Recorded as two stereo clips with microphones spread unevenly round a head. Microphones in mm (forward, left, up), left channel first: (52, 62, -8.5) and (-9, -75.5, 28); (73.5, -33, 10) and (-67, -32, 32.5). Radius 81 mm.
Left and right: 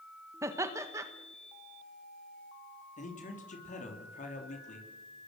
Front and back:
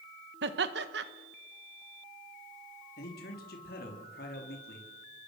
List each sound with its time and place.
0.4 s laughter: 175° left, 1.6 m
3.0 s a man speaking: 25° left, 3.5 m